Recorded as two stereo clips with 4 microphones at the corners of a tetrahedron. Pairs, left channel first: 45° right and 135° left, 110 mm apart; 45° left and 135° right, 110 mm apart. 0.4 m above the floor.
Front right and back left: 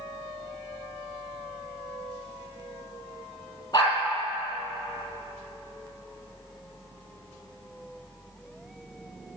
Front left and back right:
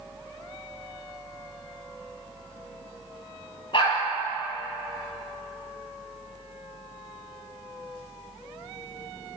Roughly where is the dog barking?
Ahead.